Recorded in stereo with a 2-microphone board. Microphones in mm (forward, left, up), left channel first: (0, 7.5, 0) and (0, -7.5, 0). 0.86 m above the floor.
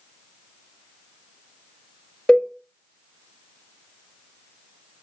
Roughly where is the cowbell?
Left.